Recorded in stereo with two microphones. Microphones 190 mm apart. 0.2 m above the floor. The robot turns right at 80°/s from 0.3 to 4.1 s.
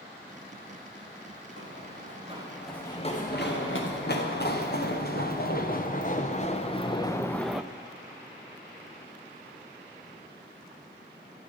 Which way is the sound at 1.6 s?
90° right.